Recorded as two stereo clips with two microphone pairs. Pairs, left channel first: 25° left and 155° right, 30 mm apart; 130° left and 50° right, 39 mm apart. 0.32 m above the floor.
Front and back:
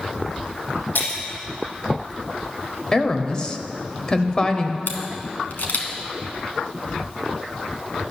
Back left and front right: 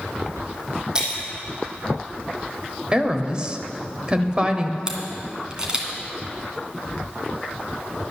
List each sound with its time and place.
0.9 s breaking glass: 20° left, 3 m
2.9 s a woman speaking: 15° right, 0.9 m
4.9 s a camera shutter: 15° left, 1.9 m